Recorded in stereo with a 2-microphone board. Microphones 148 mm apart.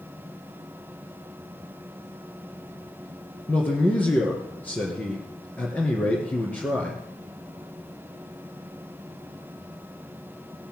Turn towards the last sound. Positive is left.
turn(degrees=10)  # may be behind; listen again after turning